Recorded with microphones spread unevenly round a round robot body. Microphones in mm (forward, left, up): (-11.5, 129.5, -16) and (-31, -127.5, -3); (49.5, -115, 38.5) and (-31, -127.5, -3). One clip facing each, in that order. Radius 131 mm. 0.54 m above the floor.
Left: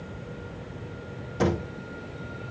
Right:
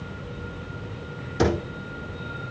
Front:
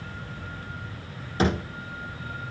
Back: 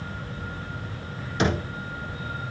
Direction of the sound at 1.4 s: 40° right.